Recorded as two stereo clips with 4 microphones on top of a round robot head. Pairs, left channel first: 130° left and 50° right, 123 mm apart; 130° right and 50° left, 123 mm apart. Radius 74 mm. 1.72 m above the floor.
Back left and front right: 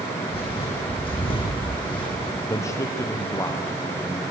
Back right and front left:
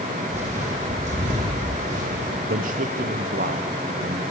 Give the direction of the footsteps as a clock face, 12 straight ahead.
9 o'clock.